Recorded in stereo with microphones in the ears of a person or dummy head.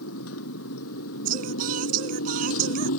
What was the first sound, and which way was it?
A motorcycle, 85° left.